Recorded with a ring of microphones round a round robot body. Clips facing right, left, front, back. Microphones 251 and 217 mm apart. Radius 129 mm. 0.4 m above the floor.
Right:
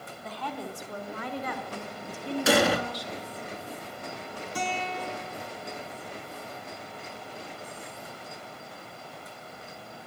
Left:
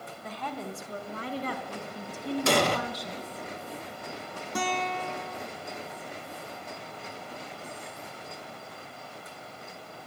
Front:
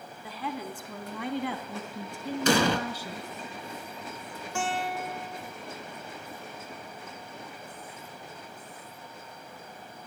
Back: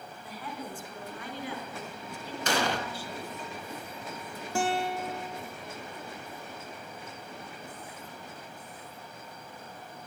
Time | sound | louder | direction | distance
0.2 | a woman speaking | even, front 4 dB | 15° left | 3 m
2.5 | an explosion | right 3 dB, front 6 dB | 5° right | 1.1 m
4.5 | a guitar | left 2 dB, back 3 dB | 125° left | 4 m